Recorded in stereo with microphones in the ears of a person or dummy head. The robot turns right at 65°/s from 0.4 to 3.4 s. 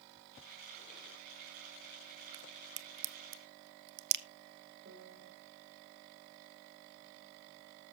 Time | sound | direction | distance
2.3 | a crack | 20° right (ahead or behind) | 1.0 m
4.8 | a piano | 40° right (ahead or behind) | 3 m